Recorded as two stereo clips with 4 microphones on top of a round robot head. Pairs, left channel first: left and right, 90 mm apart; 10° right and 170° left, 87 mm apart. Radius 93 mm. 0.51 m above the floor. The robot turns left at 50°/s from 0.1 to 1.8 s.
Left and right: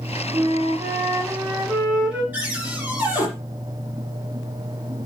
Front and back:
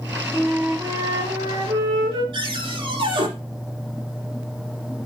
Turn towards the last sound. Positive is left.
turn(degrees=-165)